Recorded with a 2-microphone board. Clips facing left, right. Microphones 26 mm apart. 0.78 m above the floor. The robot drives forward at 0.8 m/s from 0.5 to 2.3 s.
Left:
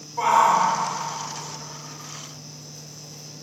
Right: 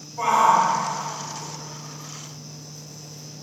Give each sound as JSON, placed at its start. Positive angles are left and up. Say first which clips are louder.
{"t": 0.2, "sound": "a shout", "louder": "even", "side_deg": 60, "distance_m": 2.0}